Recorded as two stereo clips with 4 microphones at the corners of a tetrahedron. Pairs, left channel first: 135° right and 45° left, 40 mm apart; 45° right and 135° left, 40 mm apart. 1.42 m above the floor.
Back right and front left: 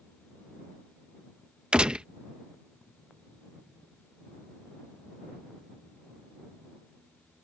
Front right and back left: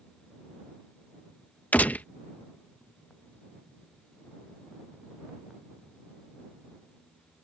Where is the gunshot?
15° right.